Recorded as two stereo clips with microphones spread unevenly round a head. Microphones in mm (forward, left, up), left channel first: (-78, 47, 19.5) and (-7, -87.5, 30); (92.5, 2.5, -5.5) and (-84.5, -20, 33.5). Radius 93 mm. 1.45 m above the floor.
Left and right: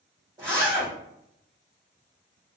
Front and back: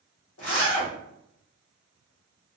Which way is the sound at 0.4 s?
5° left.